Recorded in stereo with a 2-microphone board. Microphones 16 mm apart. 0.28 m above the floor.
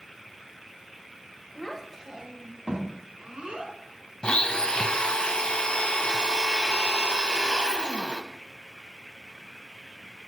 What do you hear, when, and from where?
1.6 s a child speaking: 15° left (ahead or behind), 1.0 m; by 3.7 s 70° right (ahead or behind), 3 m
4.2 s a blender: 55° left (ahead or behind), 0.5 m